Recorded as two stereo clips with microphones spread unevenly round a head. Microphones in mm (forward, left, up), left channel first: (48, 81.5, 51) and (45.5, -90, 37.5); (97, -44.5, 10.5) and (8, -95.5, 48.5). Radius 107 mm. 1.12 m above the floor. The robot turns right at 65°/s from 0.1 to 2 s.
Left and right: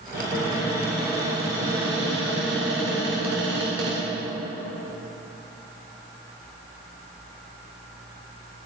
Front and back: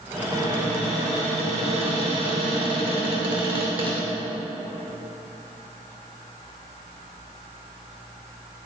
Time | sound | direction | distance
0.1 | a cupboard door | 120° left | 2.5 m